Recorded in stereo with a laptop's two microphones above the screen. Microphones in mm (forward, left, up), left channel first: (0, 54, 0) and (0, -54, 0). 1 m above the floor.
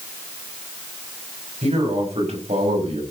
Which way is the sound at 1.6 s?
80° right.